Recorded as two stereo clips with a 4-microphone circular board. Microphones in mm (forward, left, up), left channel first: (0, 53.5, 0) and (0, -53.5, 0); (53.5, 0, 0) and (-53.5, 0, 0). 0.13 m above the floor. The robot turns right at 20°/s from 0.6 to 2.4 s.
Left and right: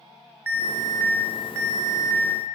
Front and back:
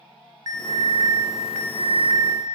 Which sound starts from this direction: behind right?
An alarm, at 0.5 s.